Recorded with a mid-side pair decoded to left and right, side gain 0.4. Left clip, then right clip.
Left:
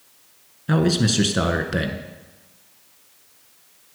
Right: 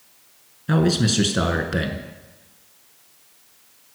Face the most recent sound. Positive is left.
turn(degrees=10)